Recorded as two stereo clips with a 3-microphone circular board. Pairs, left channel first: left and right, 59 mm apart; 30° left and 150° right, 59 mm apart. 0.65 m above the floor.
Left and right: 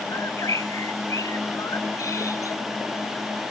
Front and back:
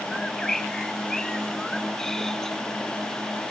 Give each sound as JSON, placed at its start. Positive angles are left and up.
{"t": 0.1, "sound": "a bird", "azimuth_deg": 110}